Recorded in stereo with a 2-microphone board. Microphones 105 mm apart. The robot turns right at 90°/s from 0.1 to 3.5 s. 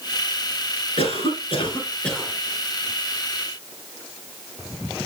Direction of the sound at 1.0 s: 70° left.